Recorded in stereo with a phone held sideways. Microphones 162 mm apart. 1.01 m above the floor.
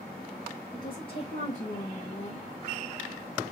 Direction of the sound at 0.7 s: 25° left (ahead or behind).